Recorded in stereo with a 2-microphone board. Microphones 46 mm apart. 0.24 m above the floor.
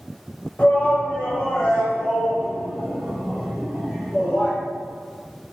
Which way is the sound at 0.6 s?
30° left (ahead or behind).